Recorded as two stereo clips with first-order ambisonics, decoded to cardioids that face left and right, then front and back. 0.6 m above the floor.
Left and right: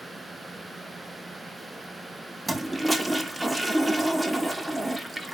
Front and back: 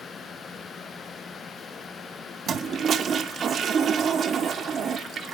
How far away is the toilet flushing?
About 0.6 m.